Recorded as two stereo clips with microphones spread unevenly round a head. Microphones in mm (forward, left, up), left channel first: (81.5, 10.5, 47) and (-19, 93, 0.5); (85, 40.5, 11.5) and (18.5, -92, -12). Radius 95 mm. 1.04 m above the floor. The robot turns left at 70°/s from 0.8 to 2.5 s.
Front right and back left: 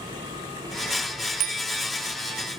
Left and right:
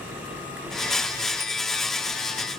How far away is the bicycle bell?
About 2 m.